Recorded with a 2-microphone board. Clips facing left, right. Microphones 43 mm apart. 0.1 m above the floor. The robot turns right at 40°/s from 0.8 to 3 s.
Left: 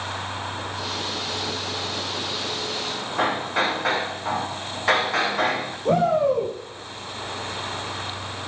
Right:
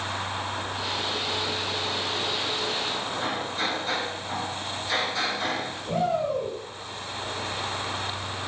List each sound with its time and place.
3.2 s hammering: 75° left (ahead or behind), 6.5 m
5.8 s a shout: 70° left (ahead or behind), 5.5 m